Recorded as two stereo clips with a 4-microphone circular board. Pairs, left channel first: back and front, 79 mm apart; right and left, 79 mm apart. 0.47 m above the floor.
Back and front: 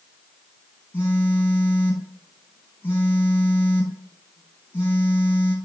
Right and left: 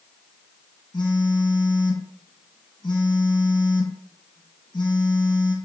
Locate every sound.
0.9 s a phone buzzing: 120° right, 2 m